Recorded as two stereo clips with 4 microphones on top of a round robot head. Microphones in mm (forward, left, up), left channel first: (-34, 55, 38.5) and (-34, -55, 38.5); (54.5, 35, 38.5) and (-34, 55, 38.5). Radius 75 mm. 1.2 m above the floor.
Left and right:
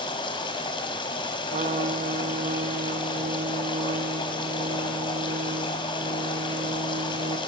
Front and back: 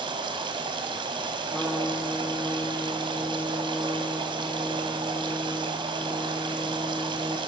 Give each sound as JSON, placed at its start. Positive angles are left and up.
{"t": 0.0, "sound": "running water", "azimuth_deg": 135, "distance_m": 3.5}
{"t": 1.5, "sound": "a trumpet", "azimuth_deg": -105, "distance_m": 1.5}